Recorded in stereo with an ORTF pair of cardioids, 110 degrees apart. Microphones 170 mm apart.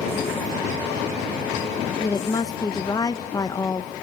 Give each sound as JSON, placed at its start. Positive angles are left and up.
{"t": 2.0, "sound": "a woman speaking", "azimuth_deg": 25, "distance_m": 1.2}